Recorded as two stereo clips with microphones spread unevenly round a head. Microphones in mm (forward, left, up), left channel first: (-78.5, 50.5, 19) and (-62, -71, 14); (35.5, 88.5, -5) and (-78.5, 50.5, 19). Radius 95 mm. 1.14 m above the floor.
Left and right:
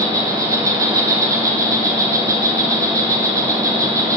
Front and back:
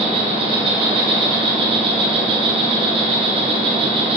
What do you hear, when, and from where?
0.0 s an insect: 125° right, 1.1 m